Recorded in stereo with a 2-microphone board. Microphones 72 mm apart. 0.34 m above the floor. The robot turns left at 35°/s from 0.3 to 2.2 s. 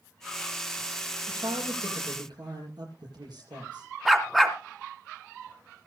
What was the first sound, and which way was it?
A man speaking, 75° right.